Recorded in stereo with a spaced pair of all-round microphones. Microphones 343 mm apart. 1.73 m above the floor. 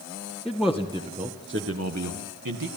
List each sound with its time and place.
0.5 s a man speaking: 5° left (ahead or behind), 2 m; by 2.7 s 70° right (ahead or behind), 2 m